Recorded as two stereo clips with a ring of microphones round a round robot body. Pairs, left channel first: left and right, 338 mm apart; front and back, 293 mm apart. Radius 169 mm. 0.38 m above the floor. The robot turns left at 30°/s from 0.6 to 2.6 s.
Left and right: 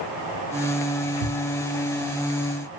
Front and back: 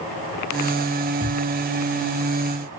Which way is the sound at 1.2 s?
90° right.